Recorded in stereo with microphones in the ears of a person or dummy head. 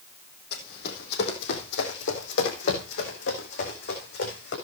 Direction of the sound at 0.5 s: 60° left (ahead or behind).